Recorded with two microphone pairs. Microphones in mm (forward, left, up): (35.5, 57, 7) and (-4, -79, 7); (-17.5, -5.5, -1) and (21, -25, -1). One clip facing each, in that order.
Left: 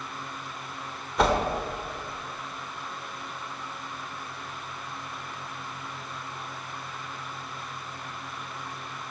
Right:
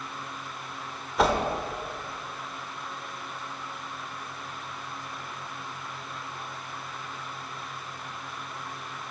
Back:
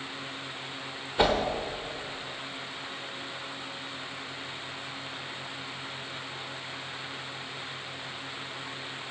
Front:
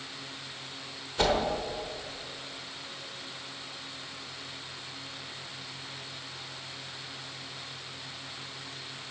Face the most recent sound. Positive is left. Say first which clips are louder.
# even, back 2 dB
turn(degrees=170)